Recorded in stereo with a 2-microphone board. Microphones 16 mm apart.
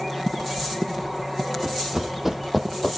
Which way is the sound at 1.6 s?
35° right (ahead or behind).